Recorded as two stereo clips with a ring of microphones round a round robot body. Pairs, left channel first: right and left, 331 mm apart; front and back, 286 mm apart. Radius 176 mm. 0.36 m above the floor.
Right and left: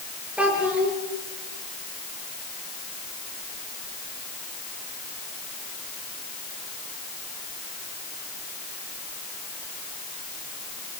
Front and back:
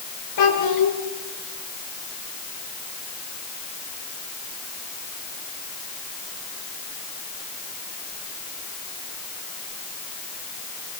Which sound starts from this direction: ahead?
A child speaking, at 0.4 s.